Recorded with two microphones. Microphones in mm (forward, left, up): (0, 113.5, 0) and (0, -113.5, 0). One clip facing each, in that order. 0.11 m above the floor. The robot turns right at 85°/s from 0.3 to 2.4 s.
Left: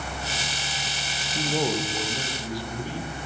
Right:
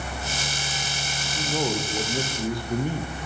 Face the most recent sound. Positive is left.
turn(degrees=-120)